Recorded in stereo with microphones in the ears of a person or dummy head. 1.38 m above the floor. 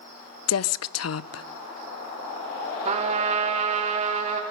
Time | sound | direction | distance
0.5 | a woman speaking | 75° left (ahead or behind) | 0.6 m
2.9 | a trumpet | 40° right (ahead or behind) | 2.5 m